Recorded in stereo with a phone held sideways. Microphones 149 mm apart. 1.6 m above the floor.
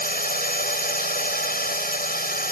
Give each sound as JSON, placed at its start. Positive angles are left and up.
{"t": 0.0, "sound": "a drone", "side_deg": 80}